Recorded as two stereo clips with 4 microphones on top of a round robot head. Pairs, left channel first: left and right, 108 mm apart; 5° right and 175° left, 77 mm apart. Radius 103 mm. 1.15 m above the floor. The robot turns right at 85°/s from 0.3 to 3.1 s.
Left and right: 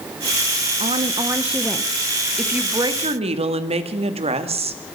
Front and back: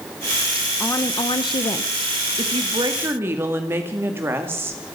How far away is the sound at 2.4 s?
About 2 m.